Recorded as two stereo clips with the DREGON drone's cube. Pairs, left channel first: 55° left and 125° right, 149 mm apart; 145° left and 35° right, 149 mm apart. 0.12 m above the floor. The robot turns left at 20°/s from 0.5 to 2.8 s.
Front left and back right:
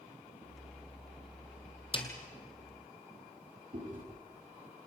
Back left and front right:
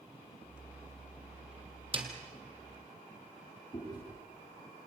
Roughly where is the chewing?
Behind right.